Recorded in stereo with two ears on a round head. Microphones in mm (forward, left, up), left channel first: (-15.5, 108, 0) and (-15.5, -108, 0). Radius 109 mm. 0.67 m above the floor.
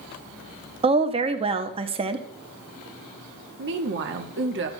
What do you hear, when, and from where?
0.8 s a woman speaking: 25° right (ahead or behind), 0.7 m
3.6 s a woman speaking: 50° right (ahead or behind), 1.0 m